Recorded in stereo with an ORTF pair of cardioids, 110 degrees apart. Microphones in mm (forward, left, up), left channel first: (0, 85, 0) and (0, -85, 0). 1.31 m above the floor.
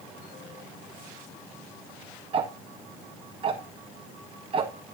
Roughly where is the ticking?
Ahead right.